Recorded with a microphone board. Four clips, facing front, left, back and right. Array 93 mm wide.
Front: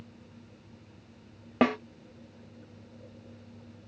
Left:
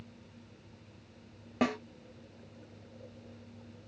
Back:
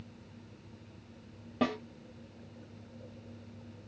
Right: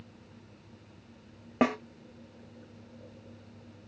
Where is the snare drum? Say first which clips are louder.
Right 4 dB, front 6 dB; 30° right, 0.5 m.